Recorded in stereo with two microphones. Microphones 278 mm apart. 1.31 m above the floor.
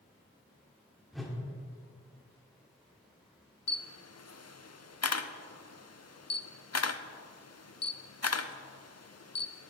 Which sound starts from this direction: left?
A camera shutter, at 3.7 s.